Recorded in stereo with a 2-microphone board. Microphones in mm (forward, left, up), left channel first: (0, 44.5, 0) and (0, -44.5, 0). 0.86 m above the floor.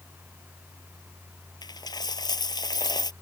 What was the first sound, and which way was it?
A dropped coin, 50° left (ahead or behind).